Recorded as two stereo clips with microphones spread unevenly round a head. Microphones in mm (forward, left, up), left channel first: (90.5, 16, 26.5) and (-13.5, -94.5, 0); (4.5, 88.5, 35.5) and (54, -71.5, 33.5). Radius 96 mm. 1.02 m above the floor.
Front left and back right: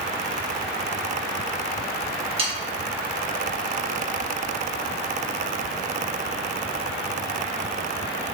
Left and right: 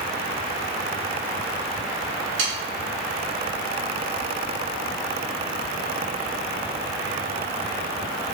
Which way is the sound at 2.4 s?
80° right.